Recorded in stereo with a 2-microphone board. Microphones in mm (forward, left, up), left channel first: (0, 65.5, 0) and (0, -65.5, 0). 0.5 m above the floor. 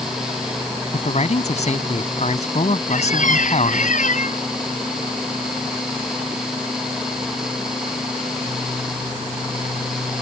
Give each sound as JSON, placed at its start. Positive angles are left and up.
{"t": 0.9, "sound": "a man speaking", "side_deg": 65}
{"t": 2.9, "sound": "a squeak", "side_deg": 80}